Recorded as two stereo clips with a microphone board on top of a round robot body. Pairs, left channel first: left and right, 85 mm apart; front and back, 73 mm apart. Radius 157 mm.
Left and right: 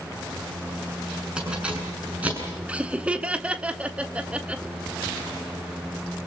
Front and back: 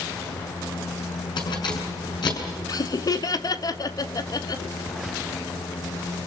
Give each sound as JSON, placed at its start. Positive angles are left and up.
{"t": 1.4, "sound": "keys jangling", "azimuth_deg": -10, "distance_m": 7.0}
{"t": 2.7, "sound": "laughter", "azimuth_deg": -15, "distance_m": 1.8}